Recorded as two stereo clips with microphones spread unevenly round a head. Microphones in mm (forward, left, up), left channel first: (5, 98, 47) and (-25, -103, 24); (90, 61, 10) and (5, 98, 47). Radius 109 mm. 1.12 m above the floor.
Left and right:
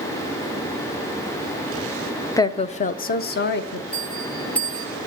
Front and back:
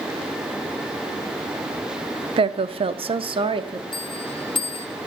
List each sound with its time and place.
2.4 s a woman speaking: 155° left, 0.5 m; by 3.8 s 115° left, 1.2 m
3.9 s a bell: 5° right, 1.1 m